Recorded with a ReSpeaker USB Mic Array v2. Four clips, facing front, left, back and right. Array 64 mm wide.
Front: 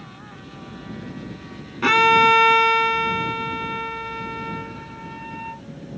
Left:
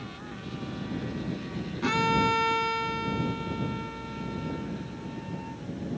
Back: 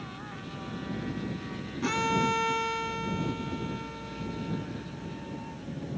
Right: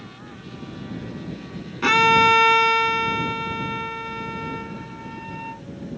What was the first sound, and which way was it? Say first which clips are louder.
A violin: right 9 dB, front 13 dB; 30° right.